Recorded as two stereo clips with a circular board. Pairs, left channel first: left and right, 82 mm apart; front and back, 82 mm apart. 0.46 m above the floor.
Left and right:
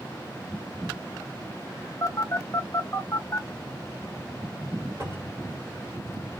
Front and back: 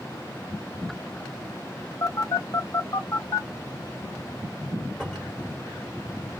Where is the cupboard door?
85° right, 1.6 m.